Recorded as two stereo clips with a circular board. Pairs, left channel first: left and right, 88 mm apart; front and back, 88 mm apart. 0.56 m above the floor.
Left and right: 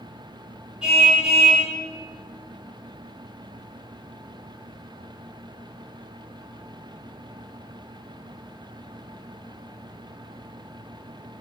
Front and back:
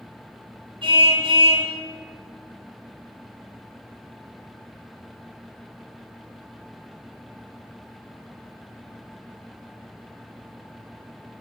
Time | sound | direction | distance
0.8 | a car horn | 170° right | 8 m